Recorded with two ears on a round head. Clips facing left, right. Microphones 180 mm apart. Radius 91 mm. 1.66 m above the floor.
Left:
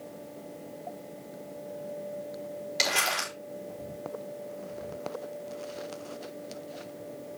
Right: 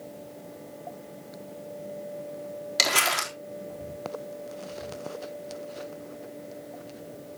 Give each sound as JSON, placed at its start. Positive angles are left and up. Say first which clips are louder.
{"t": 2.8, "sound": "crumpling", "louder": "right 3 dB", "side_deg": -70, "distance_m": 3.5}